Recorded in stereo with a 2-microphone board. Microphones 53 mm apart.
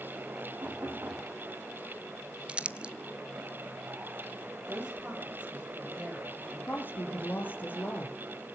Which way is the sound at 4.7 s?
20° right (ahead or behind).